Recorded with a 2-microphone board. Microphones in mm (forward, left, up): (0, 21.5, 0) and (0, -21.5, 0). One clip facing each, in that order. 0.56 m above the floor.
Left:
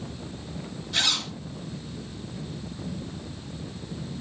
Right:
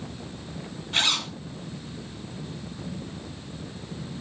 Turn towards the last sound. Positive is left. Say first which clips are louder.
# right 2 dB
turn(degrees=-40)  # may be behind; listen again after turning